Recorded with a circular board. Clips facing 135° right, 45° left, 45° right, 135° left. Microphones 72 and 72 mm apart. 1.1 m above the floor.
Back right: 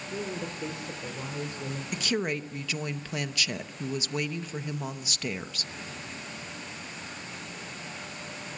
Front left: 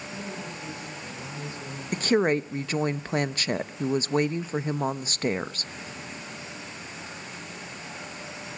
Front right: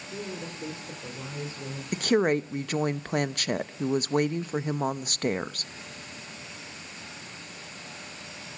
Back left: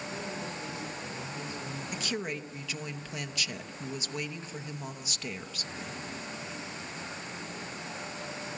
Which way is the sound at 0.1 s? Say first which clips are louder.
Back right 4 dB, front right 5 dB; 105° right.